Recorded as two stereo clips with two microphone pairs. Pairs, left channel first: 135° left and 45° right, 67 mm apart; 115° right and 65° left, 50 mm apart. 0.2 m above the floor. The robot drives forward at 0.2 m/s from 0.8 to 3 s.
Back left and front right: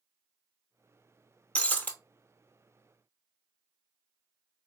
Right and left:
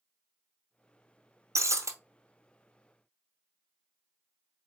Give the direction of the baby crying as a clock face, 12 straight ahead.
No baby crying in this recording.